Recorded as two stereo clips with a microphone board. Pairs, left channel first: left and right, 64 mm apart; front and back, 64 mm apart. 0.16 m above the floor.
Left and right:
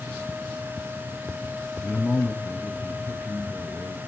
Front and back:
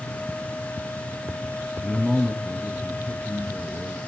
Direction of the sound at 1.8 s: 75° left.